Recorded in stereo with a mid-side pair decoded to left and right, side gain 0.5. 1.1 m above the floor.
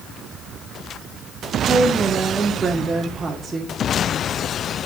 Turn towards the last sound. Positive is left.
turn(degrees=-25)